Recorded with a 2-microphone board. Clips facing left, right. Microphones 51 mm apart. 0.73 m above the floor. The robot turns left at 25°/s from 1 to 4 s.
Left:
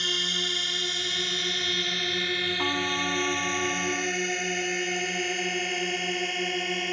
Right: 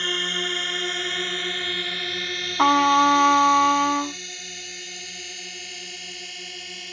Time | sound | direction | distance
0.0 | a drone | 25° right (ahead or behind) | ?
2.6 | a trumpet | 70° right | ?